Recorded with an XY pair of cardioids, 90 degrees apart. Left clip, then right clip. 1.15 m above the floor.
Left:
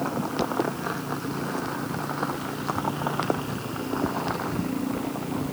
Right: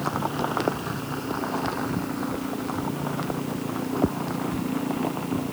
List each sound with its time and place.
Only background noise.